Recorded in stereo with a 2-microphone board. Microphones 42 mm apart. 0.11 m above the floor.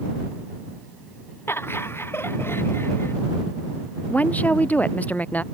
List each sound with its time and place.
1.5 s laughter: 80° left
4.1 s a woman speaking: 40° left (ahead or behind)